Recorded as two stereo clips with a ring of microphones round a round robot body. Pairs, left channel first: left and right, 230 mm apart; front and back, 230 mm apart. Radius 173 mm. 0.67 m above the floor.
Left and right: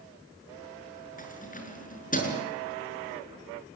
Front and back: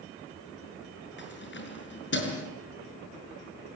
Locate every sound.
1.2 s keys jangling: 35° left, 6.5 m